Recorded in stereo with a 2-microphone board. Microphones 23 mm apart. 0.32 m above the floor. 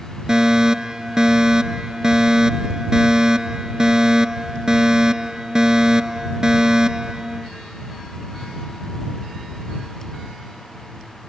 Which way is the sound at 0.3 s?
25° right (ahead or behind).